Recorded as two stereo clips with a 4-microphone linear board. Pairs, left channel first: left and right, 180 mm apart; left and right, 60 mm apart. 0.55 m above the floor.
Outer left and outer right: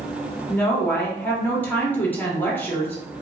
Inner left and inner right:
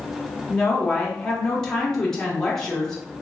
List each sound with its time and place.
0.5 s a woman speaking: 10° left (ahead or behind), 1.1 m